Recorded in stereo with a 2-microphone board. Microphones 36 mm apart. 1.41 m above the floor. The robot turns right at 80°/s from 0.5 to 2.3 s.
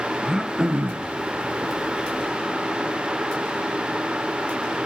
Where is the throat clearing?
165° right, 1.1 m; by 1.1 s 115° right, 1.1 m.